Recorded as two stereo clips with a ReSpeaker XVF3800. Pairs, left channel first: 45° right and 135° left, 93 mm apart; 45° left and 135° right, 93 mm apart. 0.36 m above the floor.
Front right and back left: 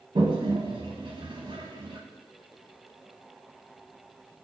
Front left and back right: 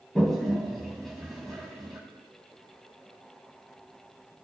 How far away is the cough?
I don't hear a cough.